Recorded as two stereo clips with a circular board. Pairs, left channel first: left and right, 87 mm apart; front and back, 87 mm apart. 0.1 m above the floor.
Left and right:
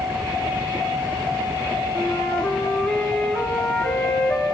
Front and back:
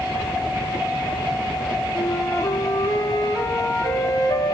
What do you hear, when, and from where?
1.9 s a flute: 15° left, 0.7 m